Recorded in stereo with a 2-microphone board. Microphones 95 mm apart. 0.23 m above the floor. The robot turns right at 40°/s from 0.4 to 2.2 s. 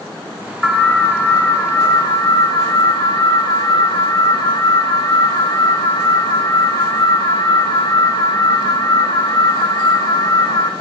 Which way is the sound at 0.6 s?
5° left.